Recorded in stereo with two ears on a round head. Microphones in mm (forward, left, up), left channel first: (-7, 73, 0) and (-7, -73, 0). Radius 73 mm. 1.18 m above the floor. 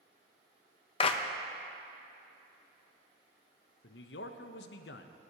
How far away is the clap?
About 0.6 m.